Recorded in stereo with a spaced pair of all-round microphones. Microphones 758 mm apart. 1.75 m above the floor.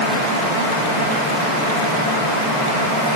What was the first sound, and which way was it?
Only background noise.